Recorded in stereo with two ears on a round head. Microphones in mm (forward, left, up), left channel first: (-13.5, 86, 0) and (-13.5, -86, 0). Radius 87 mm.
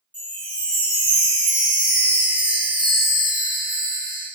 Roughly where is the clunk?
I don't hear a clunk.